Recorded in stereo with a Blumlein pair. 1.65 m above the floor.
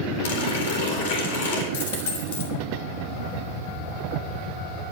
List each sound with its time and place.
0.2 s a running tap: 55° left, 4 m
1.7 s a dropped coin: 55° left, 3 m